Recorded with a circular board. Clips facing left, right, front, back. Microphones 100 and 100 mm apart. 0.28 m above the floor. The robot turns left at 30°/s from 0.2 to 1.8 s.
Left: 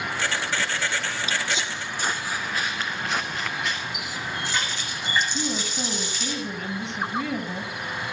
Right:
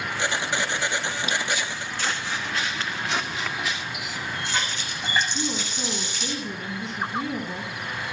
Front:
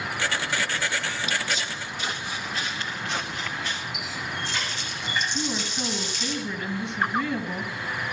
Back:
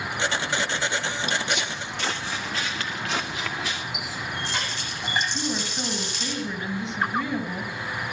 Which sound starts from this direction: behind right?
A running tap, at 3.9 s.